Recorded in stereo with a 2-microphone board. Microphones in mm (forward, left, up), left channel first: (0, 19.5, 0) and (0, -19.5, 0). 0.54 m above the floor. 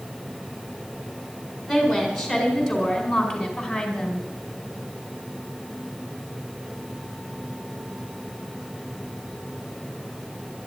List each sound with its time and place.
1.7 s a woman speaking: centre (ahead or behind), 5.5 m; by 4.2 s 5° left (ahead or behind), 4 m